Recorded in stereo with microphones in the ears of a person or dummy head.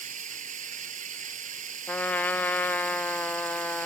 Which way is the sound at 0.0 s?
40° right (ahead or behind).